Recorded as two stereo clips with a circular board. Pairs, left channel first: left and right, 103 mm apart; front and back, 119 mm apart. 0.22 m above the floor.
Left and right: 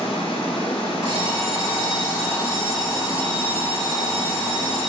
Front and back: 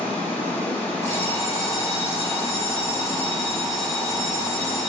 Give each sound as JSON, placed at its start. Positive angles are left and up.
{"t": 0.0, "sound": "running water", "azimuth_deg": 75, "distance_m": 0.8}
{"t": 1.0, "sound": "an alarm clock", "azimuth_deg": -65, "distance_m": 1.9}